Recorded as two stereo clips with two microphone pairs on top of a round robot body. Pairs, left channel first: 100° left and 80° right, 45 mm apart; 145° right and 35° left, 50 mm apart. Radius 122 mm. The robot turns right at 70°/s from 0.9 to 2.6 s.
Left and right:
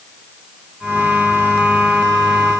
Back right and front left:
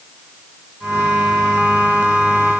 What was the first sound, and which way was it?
Only background noise.